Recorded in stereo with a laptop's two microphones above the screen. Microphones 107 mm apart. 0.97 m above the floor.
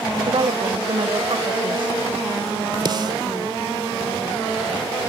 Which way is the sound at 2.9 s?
45° right (ahead or behind).